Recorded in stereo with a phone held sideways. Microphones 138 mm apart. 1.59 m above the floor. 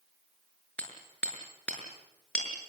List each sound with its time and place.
0.8 s hammering: 10° left (ahead or behind), 6.5 m